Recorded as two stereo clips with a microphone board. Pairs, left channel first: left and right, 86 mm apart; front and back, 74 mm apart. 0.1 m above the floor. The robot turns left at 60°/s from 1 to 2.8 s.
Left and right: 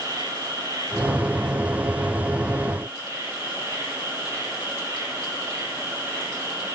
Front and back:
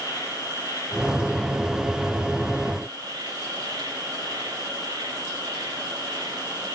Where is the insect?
40° right, 3.5 m; by 6.8 s 150° right, 3.5 m.